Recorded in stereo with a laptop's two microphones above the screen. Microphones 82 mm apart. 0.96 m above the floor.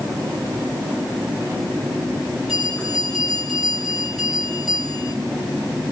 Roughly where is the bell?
Centre.